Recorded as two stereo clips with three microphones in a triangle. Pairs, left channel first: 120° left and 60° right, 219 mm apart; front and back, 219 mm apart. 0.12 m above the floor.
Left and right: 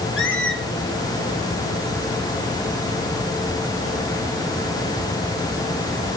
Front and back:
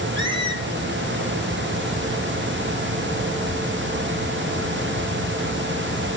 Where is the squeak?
115° left, 1.3 m.